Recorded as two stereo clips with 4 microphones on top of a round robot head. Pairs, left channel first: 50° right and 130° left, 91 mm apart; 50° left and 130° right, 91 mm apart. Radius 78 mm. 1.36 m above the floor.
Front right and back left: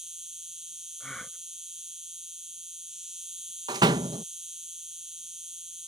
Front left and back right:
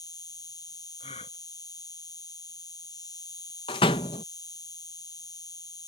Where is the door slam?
85° left.